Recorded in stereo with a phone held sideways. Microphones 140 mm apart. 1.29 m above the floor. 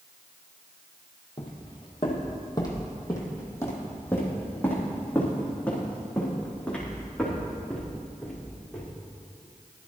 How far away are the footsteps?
About 2 m.